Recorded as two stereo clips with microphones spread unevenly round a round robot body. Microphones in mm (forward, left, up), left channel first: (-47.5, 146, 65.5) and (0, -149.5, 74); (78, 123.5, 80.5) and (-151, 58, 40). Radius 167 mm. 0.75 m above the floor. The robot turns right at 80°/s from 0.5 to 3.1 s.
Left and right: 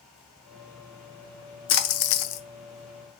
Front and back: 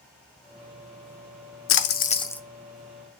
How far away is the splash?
About 0.5 m.